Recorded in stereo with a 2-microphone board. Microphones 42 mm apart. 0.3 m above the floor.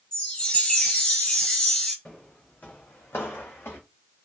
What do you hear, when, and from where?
0.1 s a chime: 30° left (ahead or behind), 1.9 m
2.0 s footsteps: 30° left (ahead or behind), 1.3 m; by 3.8 s 70° left (ahead or behind), 1.3 m